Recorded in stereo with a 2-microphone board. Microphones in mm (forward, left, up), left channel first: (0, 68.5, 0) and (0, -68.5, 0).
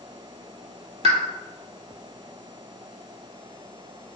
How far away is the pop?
About 0.5 m.